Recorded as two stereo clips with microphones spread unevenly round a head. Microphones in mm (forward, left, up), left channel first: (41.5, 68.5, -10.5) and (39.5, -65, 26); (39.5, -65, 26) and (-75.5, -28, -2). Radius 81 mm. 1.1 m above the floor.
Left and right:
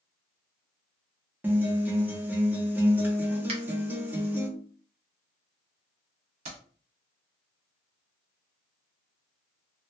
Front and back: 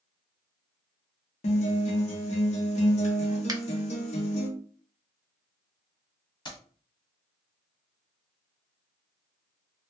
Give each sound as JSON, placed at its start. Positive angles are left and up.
{"t": 1.4, "sound": "a guitar", "azimuth_deg": -5, "distance_m": 0.7}
{"t": 3.5, "sound": "a finger snap", "azimuth_deg": -145, "distance_m": 0.6}
{"t": 6.5, "sound": "keys jangling", "azimuth_deg": -65, "distance_m": 1.2}